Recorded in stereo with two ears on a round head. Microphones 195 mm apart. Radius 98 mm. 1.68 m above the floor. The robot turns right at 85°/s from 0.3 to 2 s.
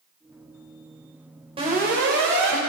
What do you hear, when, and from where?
1.6 s an alarm: 155° right, 5.5 m; by 2.6 s 115° right, 5.5 m